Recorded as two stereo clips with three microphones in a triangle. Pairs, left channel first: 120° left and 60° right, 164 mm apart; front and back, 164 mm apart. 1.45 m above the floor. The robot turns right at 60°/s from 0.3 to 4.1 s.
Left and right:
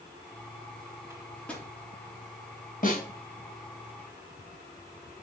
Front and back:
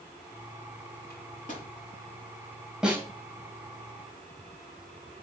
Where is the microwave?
15° left, 3 m; by 1.7 s 50° left, 3 m.